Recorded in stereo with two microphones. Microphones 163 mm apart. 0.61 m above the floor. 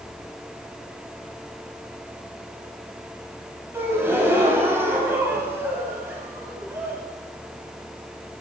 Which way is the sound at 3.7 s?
15° right (ahead or behind).